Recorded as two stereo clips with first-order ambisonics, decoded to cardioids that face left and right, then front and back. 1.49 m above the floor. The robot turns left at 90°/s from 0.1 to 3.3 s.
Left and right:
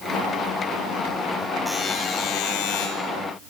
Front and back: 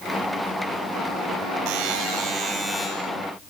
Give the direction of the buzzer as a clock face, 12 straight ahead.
6 o'clock.